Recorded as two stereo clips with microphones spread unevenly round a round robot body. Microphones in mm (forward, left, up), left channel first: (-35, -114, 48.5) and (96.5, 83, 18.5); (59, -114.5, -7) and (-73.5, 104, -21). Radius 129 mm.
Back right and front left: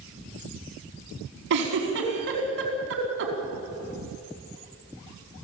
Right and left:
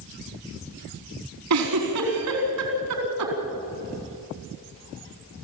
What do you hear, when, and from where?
1.5 s a giggle: 95° left, 4.5 m